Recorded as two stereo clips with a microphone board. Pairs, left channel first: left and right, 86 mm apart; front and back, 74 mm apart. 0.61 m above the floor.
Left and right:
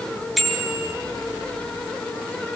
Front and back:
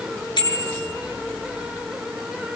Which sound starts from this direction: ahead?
A bicycle bell, at 0.4 s.